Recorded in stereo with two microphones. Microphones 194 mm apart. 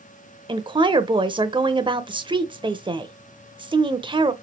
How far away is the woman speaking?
About 0.9 m.